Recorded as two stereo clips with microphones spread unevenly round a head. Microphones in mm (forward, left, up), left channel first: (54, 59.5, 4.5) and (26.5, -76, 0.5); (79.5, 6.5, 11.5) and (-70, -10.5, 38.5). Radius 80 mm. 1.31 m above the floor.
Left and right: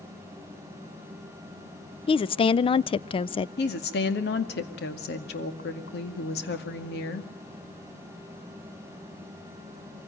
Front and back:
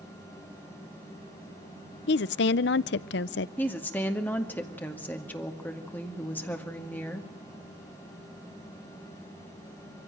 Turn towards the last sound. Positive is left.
turn(degrees=85)